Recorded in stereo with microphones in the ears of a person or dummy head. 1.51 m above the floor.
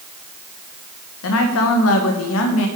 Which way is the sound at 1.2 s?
75° left (ahead or behind).